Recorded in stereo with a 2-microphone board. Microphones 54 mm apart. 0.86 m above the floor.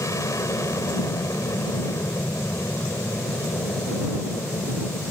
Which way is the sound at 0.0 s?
65° left (ahead or behind).